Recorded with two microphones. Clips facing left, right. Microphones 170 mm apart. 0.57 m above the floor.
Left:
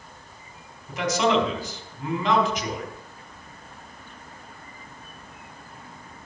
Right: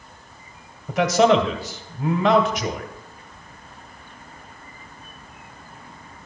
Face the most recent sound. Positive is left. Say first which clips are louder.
# right 6 dB
turn(degrees=-65)  # may be behind; listen again after turning